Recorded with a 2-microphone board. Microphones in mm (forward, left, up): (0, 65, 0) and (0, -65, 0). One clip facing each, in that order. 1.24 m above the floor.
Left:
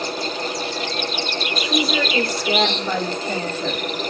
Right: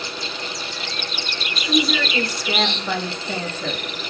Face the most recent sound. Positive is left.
turn(degrees=5)  # may be behind; listen again after turning